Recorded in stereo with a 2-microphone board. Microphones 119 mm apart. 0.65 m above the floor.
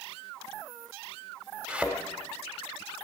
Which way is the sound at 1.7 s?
10° right (ahead or behind).